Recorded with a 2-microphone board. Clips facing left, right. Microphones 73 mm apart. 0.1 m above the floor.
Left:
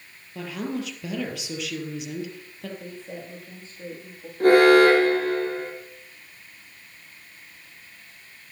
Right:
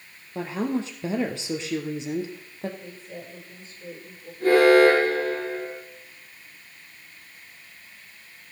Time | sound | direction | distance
0.3 | a woman speaking | 30° right (ahead or behind) | 2.5 m
2.8 | a woman speaking | 60° left (ahead or behind) | 9.5 m
4.4 | an alarm | 65° left (ahead or behind) | 5 m